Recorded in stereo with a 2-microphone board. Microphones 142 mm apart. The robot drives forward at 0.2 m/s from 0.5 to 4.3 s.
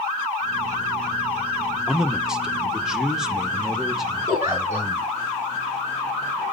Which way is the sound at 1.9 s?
5° right (ahead or behind).